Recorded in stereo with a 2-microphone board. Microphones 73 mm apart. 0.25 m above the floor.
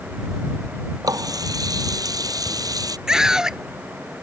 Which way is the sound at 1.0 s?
55° right (ahead or behind).